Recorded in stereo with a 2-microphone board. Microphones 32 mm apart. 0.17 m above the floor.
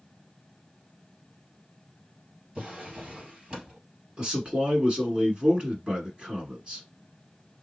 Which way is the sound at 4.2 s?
30° right (ahead or behind).